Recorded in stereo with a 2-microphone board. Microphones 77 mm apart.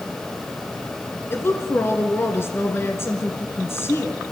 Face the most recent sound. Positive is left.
turn(degrees=35)  # may be behind; listen again after turning